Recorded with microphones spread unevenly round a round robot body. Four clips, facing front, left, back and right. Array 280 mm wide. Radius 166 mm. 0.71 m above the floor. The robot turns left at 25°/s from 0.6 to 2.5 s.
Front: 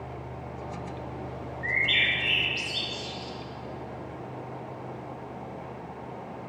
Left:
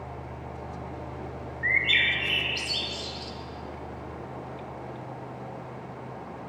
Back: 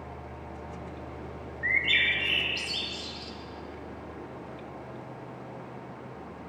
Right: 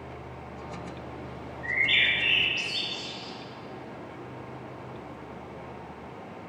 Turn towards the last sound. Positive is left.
turn(degrees=80)